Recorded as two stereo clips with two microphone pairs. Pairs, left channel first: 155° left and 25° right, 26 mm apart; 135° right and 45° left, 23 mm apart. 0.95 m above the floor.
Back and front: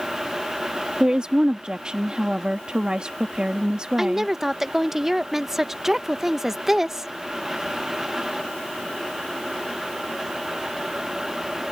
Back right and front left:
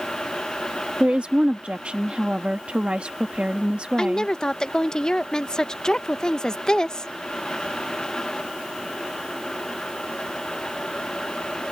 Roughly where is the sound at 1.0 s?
Ahead left.